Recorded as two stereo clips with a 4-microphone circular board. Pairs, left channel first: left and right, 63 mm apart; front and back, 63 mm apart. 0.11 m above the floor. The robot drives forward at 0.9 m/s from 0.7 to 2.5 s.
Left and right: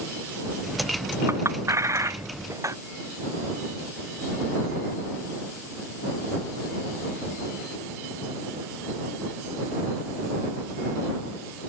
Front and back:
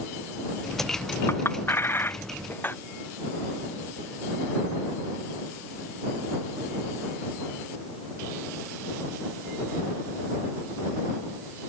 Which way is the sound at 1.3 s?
50° right.